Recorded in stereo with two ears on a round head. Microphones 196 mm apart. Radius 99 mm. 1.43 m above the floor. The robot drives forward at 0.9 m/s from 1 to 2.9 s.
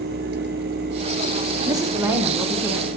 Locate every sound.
1.7 s a woman speaking: 20° right (ahead or behind), 0.8 m; by 2.9 s 10° right (ahead or behind), 1.9 m